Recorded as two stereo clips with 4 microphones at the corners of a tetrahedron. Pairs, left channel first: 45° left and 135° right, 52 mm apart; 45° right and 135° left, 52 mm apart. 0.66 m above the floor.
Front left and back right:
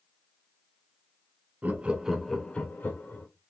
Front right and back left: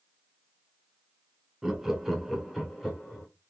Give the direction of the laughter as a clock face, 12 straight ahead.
5 o'clock.